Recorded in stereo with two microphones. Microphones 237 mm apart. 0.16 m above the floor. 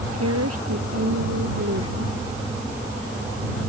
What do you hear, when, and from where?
0.1 s a woman speaking: 85° right; by 2.1 s 80° right